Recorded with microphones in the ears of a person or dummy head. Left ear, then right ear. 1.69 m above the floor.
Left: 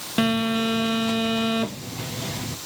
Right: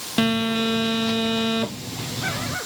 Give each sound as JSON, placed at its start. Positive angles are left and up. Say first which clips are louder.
{"t": 0.2, "sound": "a phone buzzing", "louder": "right 1 dB", "side_deg": 0, "distance_m": 0.6}